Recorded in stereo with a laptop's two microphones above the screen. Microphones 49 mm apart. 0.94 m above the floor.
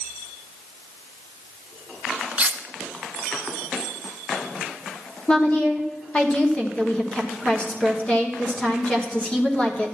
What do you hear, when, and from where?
2.4 s cutlery clinking: 30° right (ahead or behind), 0.5 m
5.3 s a woman speaking: 25° left (ahead or behind), 1.1 m